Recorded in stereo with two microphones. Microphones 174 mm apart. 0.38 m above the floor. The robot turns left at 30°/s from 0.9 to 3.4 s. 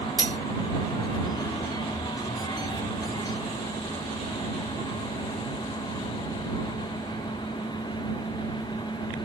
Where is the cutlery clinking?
55° right (ahead or behind).